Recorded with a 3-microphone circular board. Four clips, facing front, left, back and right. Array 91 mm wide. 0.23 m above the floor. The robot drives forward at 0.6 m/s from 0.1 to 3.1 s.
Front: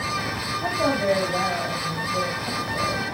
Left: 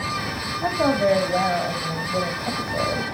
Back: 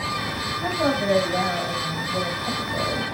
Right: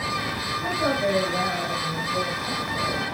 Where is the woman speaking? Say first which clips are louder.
Left 5 dB, even; 85° left, 5.5 m; by 3.0 s 100° left, 5.5 m.